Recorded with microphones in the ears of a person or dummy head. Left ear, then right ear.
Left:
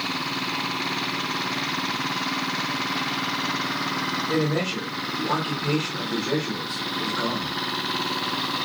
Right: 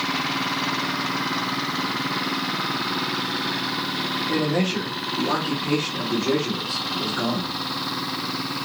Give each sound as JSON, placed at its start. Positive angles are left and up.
{"t": 4.3, "sound": "a man speaking", "side_deg": -15, "distance_m": 1.2}